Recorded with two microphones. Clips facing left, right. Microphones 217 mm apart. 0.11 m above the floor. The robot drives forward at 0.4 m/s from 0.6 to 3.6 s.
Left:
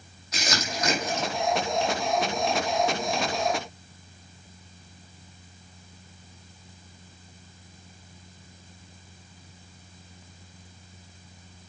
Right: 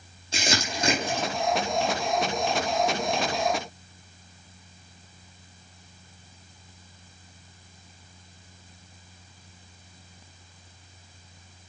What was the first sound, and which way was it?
Crumpling, 25° right (ahead or behind).